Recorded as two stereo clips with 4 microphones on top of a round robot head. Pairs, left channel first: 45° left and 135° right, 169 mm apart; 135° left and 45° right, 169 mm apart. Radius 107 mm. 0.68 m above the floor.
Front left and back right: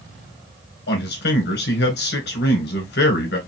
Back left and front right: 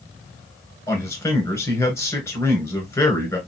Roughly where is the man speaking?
Ahead left.